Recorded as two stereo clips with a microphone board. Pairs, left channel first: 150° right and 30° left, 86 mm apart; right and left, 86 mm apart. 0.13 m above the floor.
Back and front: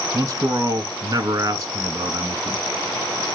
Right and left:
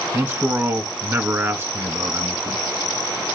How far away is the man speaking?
About 1.3 m.